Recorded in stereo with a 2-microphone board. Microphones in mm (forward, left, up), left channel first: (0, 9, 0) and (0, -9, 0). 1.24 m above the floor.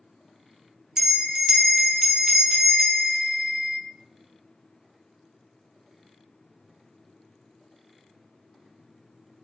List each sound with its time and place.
1.0 s a bell: 25° right (ahead or behind), 0.5 m